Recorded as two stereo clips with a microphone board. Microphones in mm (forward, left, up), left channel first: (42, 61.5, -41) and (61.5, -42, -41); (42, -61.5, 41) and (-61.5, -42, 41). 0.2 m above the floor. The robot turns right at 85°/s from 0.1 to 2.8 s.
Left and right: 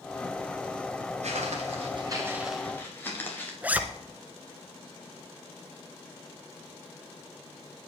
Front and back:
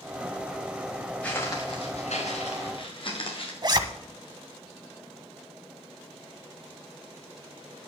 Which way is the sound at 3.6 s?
150° right.